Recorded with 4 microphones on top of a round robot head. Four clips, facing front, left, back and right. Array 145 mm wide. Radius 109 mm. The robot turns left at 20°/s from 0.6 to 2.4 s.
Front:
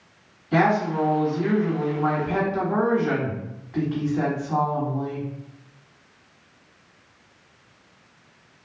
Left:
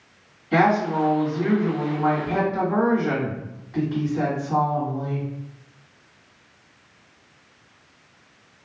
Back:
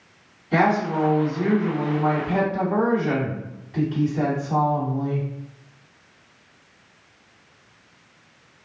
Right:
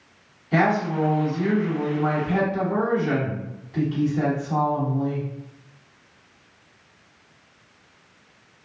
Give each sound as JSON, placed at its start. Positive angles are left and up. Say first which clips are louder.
{"t": 0.5, "sound": "a woman speaking", "louder": "left 2 dB, even", "azimuth_deg": 70, "distance_m": 1.7}